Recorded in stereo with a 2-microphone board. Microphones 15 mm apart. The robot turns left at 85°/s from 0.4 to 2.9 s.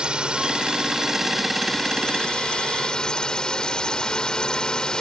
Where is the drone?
95° right; by 5.0 s 55° left.